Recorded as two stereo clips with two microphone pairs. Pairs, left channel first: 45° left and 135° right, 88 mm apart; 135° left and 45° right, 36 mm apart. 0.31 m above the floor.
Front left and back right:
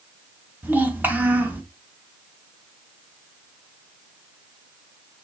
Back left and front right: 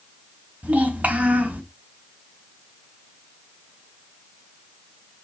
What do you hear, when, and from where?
0.6 s a child speaking: 70° right, 1.3 m